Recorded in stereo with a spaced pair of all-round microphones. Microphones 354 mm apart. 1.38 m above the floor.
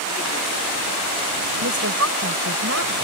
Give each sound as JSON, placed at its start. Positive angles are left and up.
{"t": 1.6, "sound": "a woman speaking", "side_deg": -45}